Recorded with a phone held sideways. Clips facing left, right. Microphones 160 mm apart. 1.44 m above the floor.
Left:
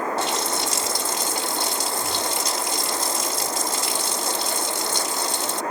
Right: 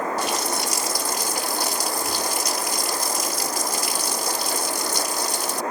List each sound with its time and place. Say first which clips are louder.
0.2 s a running tap: even; 25° left (ahead or behind)